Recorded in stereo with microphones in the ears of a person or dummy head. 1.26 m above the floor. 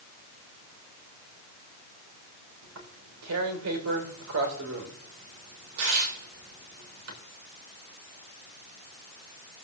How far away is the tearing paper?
About 3 m.